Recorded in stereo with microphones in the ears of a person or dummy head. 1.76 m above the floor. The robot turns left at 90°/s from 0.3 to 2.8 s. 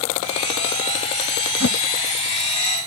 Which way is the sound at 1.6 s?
70° left (ahead or behind).